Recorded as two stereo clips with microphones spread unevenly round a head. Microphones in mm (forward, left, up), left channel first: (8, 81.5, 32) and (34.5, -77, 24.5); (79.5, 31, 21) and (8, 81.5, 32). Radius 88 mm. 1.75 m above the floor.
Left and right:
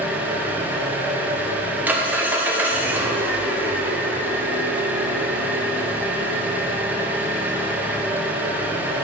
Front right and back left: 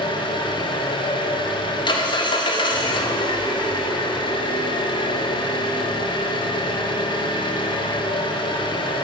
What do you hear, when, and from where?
0.0 s an engine running: straight ahead, 1.2 m